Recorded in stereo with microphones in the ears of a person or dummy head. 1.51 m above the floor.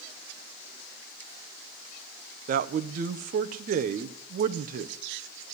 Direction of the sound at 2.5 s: 40° right (ahead or behind).